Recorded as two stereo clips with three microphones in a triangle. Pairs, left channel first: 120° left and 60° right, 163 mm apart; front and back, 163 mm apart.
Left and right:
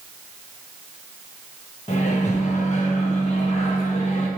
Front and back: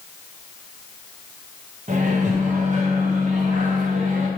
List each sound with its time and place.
1.9 s a microwave: 155° left, 1.0 m